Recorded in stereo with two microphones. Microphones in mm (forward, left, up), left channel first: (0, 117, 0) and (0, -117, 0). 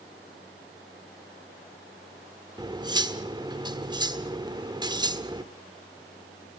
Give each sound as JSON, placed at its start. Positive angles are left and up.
{"t": 2.6, "sound": "cutlery clinking", "side_deg": -20, "distance_m": 1.2}